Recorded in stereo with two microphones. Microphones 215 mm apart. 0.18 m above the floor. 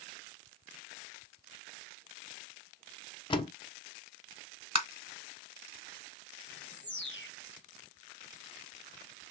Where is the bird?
60° left (ahead or behind), 1.3 m.